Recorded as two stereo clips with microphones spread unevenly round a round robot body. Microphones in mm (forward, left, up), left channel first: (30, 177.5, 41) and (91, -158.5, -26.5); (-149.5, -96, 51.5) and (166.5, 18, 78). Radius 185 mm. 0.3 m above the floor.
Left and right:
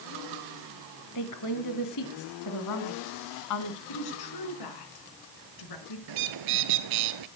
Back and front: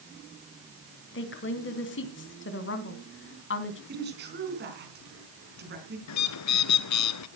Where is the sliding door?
I don't hear a sliding door.